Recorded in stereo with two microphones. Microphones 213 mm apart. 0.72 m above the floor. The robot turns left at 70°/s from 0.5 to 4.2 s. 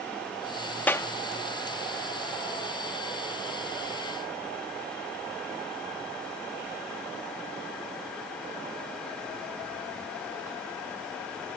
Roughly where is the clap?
Centre.